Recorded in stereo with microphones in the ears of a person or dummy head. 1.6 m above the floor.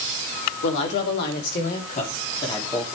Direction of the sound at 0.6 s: 70° left (ahead or behind).